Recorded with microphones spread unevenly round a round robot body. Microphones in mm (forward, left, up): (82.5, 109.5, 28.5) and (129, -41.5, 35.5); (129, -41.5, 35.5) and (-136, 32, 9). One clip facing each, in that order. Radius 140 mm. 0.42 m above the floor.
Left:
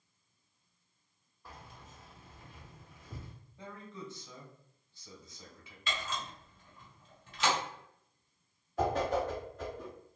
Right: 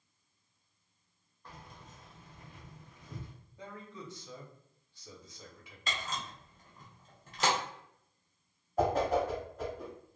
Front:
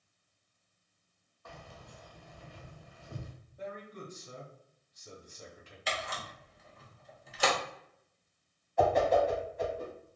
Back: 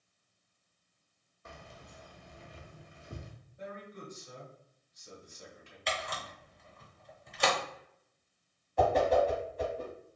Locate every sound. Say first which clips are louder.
1.4 s keys jangling: even, front 1 dB; straight behind, 0.6 m
3.6 s a man speaking: even, front 2 dB; straight ahead, 1.5 m
5.9 s a camera shutter: left 1 dB, back 1 dB; 110° right, 0.6 m
8.8 s a whoosh: right 2 dB, even; 140° right, 1.0 m